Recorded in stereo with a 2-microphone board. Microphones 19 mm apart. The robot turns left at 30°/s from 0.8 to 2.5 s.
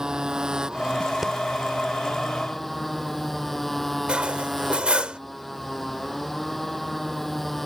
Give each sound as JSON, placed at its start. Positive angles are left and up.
{"t": 0.0, "sound": "a motorcycle", "azimuth_deg": -140}
{"t": 1.2, "sound": "breathing", "side_deg": -20}
{"t": 4.1, "sound": "cutlery clinking", "side_deg": -80}